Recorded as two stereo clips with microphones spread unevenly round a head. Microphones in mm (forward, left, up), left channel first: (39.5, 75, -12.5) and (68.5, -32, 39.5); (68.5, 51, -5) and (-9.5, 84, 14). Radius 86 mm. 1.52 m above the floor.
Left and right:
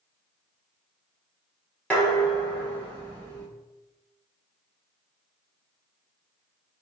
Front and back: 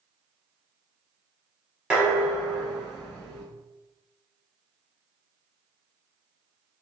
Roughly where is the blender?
No blender in this recording.